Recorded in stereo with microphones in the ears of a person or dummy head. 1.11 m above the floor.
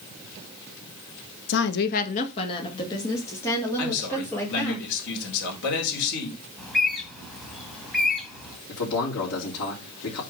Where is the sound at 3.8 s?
65° left (ahead or behind), 3.5 m.